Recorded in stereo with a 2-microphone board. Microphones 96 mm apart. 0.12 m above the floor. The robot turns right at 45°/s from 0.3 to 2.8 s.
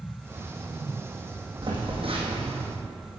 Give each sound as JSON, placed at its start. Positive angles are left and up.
{"t": 1.6, "sound": "a phone buzzing", "azimuth_deg": -125, "distance_m": 2.5}